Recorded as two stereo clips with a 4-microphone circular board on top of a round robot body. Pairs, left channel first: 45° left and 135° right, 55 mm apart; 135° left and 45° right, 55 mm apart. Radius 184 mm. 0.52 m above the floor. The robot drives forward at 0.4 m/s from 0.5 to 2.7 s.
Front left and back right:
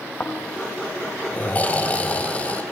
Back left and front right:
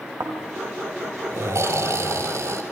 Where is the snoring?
15° right, 5 m; by 2.6 s 20° right, 4 m.